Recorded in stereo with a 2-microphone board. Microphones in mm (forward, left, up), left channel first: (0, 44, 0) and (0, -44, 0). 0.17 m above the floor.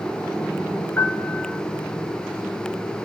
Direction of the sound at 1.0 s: 30° left (ahead or behind).